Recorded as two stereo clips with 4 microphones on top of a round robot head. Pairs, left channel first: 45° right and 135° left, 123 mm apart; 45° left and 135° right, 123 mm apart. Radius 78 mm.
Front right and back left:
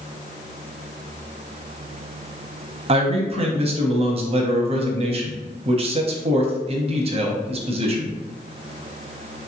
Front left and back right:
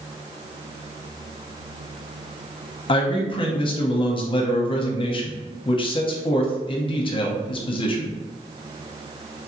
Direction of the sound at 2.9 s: 95° left.